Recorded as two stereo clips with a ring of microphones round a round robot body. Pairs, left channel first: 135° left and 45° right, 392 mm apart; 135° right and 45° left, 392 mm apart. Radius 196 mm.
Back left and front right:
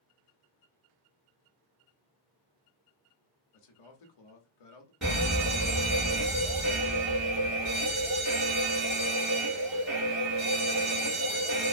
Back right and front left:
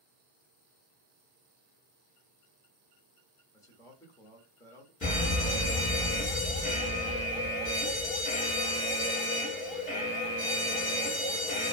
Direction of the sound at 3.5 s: 145° left.